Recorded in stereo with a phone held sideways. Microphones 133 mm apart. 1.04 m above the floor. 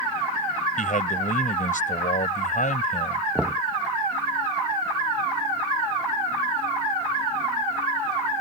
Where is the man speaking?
80° left.